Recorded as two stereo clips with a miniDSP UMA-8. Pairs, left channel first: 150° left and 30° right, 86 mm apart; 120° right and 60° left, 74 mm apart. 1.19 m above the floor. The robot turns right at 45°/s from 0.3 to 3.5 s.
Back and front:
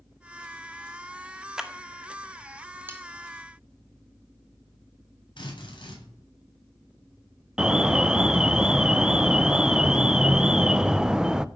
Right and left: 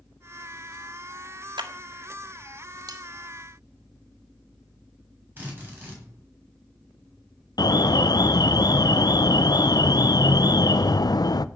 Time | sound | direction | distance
1.6 | a clap | 50° left | 1.7 m
2.9 | cutlery clinking | 35° left | 2.5 m
5.4 | a drill | 125° left | 8.5 m
7.6 | an alarm | 110° right | 0.6 m